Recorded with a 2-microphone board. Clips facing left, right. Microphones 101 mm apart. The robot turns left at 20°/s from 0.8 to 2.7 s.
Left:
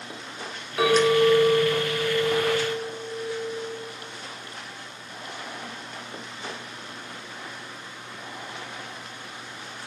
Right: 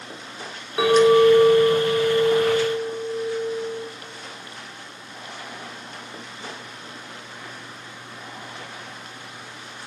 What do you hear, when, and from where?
0.8 s a clink: 25° right, 1.6 m; by 3.9 s 65° right, 1.6 m